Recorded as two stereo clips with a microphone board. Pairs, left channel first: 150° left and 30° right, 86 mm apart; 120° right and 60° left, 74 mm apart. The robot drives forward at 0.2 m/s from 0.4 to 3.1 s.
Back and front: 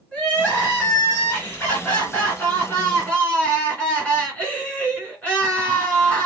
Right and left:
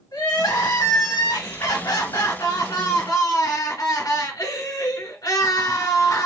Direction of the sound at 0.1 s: 130° right.